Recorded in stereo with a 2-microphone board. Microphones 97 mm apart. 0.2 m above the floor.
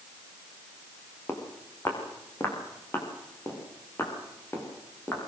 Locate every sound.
1.3 s footsteps: 25° left (ahead or behind), 4.5 m